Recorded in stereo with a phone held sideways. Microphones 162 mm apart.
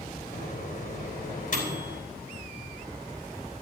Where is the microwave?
55° left (ahead or behind), 4 m.